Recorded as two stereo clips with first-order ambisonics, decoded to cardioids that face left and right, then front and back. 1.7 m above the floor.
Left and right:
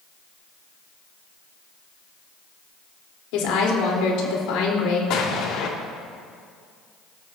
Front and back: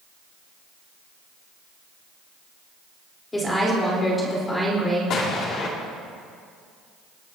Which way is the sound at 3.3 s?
80° left.